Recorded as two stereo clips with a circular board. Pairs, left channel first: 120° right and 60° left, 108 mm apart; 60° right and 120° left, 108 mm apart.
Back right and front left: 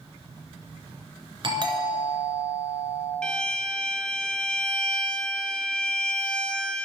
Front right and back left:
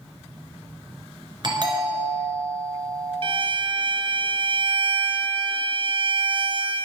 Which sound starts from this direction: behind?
A violin, at 3.2 s.